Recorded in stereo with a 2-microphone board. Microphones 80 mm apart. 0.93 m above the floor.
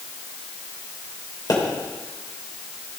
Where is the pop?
55° left (ahead or behind), 3 m.